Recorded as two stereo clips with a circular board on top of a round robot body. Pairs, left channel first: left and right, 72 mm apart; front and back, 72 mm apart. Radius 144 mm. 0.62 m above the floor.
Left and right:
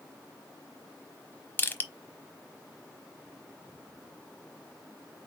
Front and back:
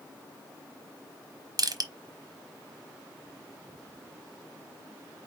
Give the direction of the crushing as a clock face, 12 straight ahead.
7 o'clock.